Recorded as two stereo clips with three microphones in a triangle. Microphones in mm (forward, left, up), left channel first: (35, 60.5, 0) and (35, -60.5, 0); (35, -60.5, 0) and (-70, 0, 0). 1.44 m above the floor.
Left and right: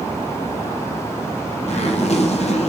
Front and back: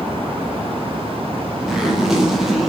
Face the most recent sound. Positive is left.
turn(degrees=65)